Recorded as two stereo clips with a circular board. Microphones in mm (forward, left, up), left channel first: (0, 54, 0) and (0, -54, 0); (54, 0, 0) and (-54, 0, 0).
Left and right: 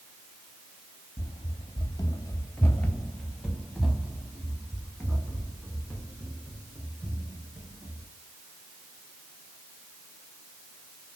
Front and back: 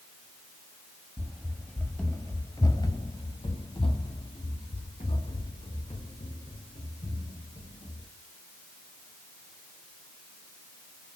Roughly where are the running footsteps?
Left.